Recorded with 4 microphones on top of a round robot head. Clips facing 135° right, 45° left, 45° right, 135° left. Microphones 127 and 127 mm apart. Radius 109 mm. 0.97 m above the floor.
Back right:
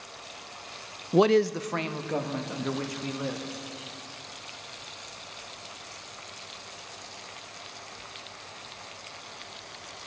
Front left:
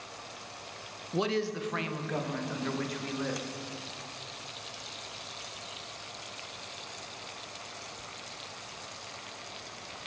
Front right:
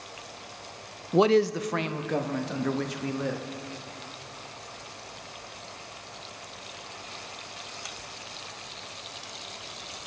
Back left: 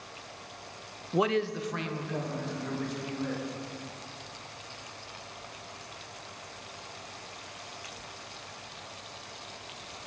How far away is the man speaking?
About 0.5 m.